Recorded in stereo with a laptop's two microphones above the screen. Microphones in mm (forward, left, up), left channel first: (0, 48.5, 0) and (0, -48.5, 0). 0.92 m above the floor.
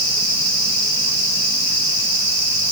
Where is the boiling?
No boiling in this recording.